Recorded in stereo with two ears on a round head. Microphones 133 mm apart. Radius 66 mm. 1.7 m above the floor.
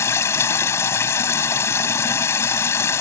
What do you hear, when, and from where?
0.0 s running water: 20° left (ahead or behind)